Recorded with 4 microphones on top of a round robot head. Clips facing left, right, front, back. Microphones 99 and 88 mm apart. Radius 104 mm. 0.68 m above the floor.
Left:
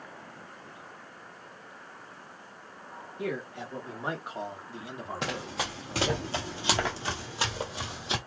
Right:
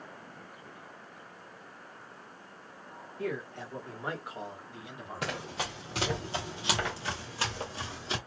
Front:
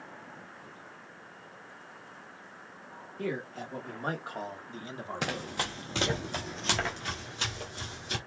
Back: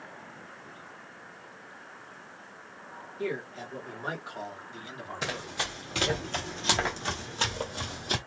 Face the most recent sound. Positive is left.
turn(degrees=160)